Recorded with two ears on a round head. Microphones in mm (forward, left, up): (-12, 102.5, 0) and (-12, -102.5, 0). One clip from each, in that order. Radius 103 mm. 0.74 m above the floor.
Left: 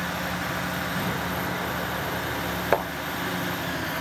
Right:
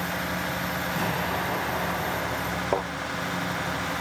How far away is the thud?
About 3.5 m.